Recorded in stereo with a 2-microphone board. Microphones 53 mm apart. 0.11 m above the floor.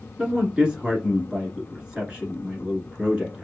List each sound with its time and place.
0.2 s a man speaking: 15° right (ahead or behind), 1.2 m